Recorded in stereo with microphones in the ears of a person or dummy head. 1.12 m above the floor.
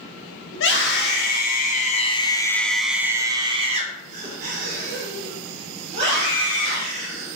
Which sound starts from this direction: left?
A scream, at 0.5 s.